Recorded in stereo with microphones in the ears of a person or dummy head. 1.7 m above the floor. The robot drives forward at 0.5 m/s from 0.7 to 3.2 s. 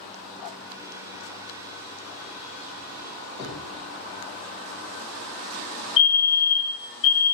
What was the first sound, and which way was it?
Knocking, 30° left (ahead or behind).